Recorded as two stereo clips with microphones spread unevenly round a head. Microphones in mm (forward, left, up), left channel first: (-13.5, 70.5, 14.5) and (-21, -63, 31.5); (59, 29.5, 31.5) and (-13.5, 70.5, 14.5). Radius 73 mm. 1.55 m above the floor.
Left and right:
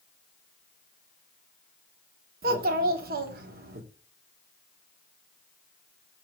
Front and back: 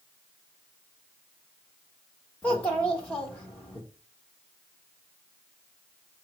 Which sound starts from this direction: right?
A child speaking, at 2.4 s.